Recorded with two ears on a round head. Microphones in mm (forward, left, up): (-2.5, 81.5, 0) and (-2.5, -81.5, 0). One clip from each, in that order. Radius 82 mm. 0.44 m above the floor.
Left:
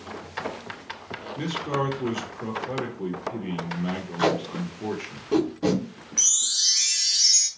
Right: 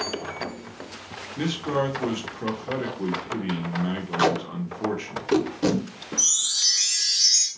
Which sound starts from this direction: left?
A chime, at 6.2 s.